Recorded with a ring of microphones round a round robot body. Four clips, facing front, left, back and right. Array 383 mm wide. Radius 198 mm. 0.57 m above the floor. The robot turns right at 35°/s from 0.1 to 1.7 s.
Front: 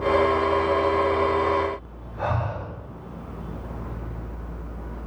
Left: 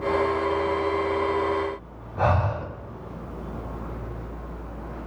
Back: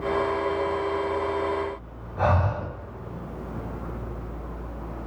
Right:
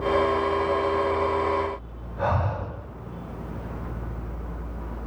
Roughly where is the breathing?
Behind left.